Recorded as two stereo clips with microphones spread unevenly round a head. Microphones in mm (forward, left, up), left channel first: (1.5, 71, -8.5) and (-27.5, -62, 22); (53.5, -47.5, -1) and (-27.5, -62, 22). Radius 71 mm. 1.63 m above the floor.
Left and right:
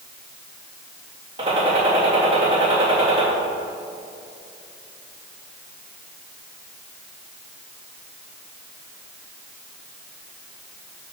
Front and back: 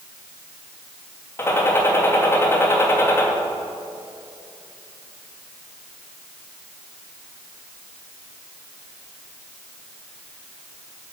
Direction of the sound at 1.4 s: 50° right.